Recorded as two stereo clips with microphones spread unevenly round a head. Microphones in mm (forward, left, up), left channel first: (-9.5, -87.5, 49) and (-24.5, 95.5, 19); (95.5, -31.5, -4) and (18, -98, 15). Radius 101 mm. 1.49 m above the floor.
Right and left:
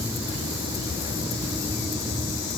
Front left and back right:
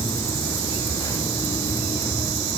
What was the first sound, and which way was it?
Only background noise.